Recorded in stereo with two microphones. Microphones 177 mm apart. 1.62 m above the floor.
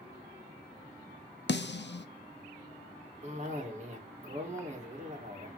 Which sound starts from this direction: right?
A cough, at 3.2 s.